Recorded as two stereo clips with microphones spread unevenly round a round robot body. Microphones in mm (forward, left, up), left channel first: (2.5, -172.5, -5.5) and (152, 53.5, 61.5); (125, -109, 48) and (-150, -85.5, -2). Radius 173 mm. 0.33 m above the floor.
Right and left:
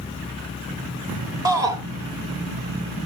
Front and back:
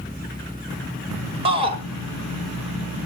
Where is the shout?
150° left, 1.1 m.